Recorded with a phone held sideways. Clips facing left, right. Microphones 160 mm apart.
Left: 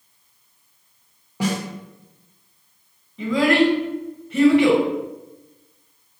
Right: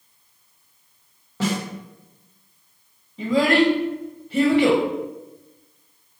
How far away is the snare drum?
About 0.9 m.